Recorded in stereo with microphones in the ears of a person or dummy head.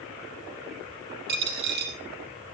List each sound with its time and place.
1.3 s a dropped coin: 55° right (ahead or behind), 3 m